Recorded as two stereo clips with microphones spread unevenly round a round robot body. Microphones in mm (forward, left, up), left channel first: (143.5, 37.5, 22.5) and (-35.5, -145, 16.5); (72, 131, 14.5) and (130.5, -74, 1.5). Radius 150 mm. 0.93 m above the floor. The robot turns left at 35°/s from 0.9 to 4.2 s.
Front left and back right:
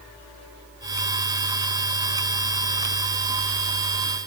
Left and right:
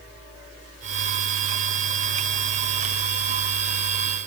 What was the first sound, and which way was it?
Only background noise.